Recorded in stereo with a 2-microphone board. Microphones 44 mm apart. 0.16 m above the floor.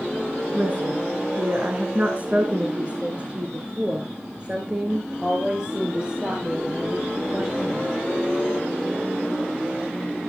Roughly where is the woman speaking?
Right.